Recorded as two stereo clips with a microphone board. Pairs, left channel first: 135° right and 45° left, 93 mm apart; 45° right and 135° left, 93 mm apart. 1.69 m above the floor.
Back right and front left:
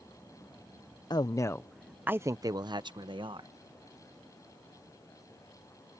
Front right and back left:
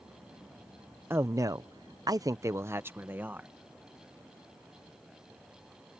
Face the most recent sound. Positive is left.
turn(degrees=65)